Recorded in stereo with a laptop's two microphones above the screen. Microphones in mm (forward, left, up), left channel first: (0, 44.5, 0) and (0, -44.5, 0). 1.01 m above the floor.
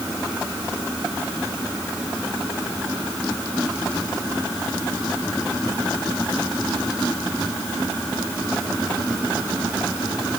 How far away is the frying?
No frying in this recording.